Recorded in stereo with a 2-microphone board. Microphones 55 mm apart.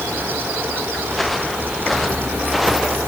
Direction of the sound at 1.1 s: 5° left (ahead or behind).